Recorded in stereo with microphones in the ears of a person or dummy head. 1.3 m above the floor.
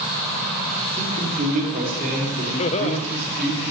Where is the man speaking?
40° right (ahead or behind), 3 m; by 3.6 s 60° right (ahead or behind), 4 m.